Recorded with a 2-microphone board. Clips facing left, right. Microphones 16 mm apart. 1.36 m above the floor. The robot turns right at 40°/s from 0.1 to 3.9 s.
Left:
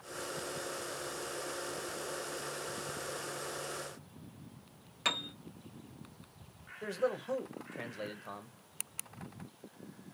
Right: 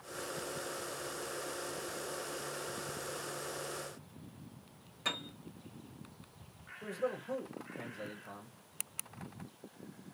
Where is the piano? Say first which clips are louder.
Left 4 dB; 45° left (ahead or behind), 0.9 m.